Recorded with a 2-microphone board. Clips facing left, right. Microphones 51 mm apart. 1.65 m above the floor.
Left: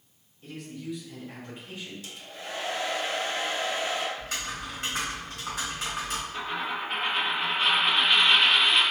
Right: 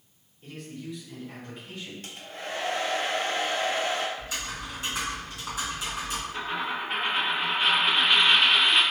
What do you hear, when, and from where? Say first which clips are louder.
0.4 s a man speaking: left 1 dB; centre (ahead or behind), 1.4 m; by 1.9 s 15° left (ahead or behind), 2 m
2.0 s a hair dryer: right 2 dB; 45° right (ahead or behind), 0.6 m
4.2 s typing on a keyboard: even; 50° left (ahead or behind), 1.4 m
6.3 s a dropped coin: right 2 dB; 5° right (ahead or behind), 1.1 m